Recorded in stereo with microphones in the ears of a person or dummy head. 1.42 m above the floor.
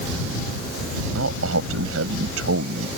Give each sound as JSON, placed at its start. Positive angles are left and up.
{"t": 1.1, "sound": "a man speaking", "side_deg": -85}